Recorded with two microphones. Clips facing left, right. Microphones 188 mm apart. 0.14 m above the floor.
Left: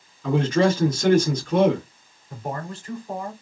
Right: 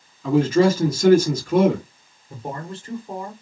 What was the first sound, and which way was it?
A man speaking, 10° right (ahead or behind).